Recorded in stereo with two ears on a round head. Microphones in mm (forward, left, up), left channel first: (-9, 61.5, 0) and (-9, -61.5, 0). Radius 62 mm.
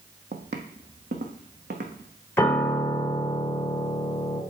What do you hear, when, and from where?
0.3 s footsteps: 55° right (ahead or behind), 1.0 m; by 2.1 s 70° right (ahead or behind), 1.8 m
2.4 s a piano: 15° left (ahead or behind), 0.9 m